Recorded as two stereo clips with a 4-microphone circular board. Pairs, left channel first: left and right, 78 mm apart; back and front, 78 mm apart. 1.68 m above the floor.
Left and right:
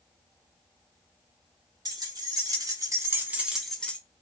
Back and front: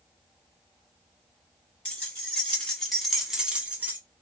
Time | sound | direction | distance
1.9 | keys jangling | 105° right | 1.4 m